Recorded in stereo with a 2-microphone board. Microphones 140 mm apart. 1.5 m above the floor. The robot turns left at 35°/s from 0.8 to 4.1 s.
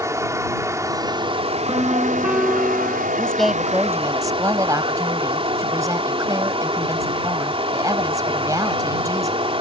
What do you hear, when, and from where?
0.0 s running water: 20° right; by 9.6 s 140° right
1.7 s a piano: 150° right; by 3.1 s 160° left
3.2 s a woman speaking: 10° left; by 9.4 s 25° right